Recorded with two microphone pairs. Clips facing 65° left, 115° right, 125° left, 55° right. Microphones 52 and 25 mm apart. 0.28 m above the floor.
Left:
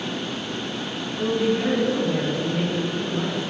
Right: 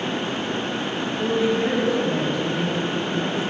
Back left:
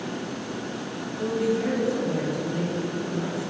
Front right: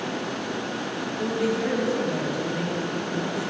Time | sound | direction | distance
1.2 | a woman speaking | 30° left | 3.5 m